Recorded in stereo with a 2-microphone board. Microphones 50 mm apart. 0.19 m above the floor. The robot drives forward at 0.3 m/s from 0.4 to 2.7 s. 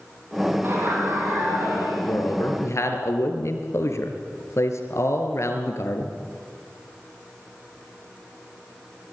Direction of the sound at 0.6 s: 50° right (ahead or behind).